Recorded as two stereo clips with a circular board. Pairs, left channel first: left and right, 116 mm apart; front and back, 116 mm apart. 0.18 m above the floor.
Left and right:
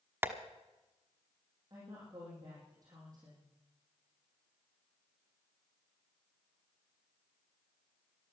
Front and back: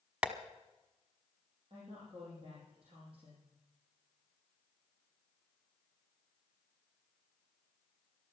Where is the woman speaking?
145° right, 5.5 m.